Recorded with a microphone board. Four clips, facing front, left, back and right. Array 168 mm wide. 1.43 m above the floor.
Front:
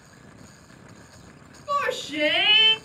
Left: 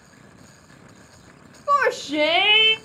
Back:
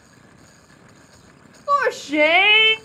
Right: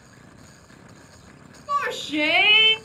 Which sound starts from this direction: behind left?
A shout, at 1.7 s.